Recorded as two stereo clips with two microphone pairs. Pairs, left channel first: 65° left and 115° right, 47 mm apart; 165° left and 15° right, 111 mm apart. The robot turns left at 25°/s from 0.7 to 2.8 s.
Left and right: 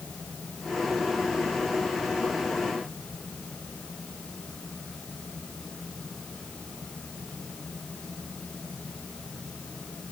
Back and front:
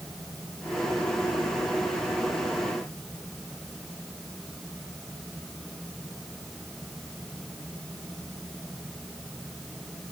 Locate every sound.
Only background noise.